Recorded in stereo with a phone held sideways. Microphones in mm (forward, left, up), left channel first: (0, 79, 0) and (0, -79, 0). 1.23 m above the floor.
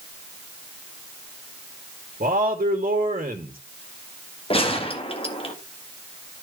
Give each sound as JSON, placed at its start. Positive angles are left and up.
{"t": 2.2, "sound": "a man speaking", "side_deg": -60, "distance_m": 2.0}
{"t": 4.5, "sound": "a gunshot", "side_deg": 40, "distance_m": 1.7}